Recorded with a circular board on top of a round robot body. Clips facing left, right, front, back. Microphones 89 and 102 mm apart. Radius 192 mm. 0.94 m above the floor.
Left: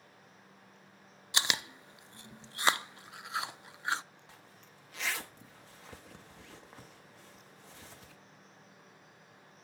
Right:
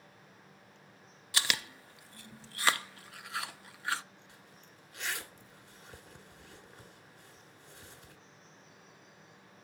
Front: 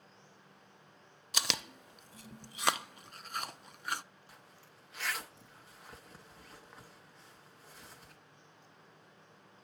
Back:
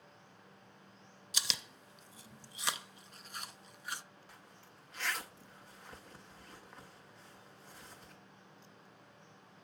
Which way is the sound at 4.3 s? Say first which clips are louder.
Even, back 1 dB; 85° left.